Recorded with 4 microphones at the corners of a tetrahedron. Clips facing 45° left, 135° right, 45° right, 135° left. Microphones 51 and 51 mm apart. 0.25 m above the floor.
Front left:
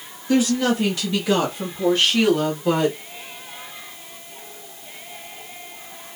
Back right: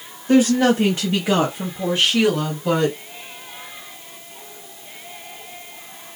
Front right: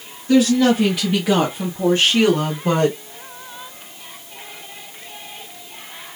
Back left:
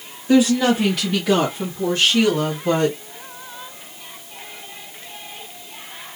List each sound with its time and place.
0.3 s a woman speaking: 155° right, 1.2 m; by 3.0 s 40° right, 1.5 m